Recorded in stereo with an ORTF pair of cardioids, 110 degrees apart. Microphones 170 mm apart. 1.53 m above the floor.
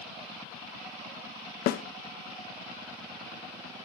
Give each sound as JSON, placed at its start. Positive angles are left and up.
{"t": 1.7, "sound": "a snare drum", "azimuth_deg": 65, "distance_m": 1.2}